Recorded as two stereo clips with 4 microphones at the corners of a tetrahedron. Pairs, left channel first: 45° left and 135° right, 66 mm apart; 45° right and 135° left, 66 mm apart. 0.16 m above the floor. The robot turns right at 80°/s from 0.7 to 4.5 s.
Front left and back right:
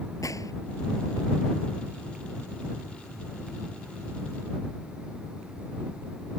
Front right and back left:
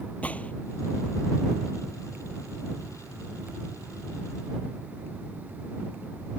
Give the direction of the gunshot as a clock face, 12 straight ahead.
11 o'clock.